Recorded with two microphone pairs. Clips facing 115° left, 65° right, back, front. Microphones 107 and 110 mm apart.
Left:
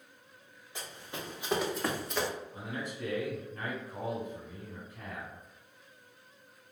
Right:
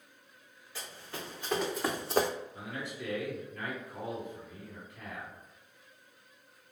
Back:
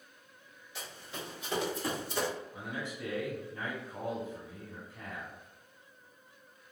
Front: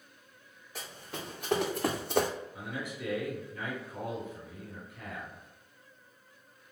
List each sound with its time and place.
0.8 s running footsteps: 45° left, 1.9 m; by 2.3 s 45° right, 0.5 m
2.5 s a man speaking: 160° left, 1.7 m